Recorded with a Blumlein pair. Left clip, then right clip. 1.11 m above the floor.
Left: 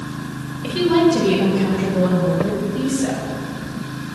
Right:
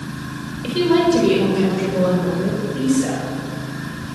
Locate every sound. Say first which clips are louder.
0.6 s a woman speaking: even; 5° right, 4.5 m; by 3.3 s 10° right, 6 m